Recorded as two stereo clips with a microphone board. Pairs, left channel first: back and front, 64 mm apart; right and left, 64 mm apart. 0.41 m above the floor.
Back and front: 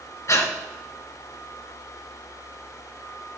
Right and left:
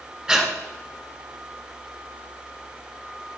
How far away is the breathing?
About 1.5 m.